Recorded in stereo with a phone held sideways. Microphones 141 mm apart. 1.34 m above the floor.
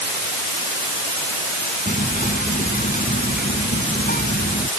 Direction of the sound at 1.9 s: 90° left.